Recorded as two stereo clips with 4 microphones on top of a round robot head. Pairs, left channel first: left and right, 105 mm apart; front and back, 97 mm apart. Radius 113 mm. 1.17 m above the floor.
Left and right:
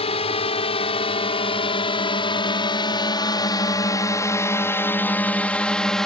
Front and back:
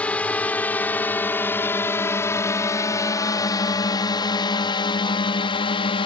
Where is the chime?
I don't hear a chime.